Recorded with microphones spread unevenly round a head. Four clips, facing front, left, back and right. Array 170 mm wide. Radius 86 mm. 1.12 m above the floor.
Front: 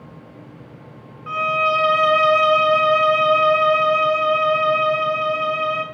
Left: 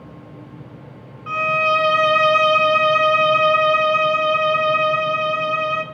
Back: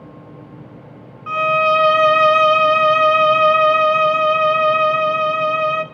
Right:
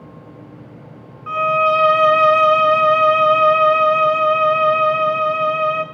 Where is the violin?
150° right, 0.7 m.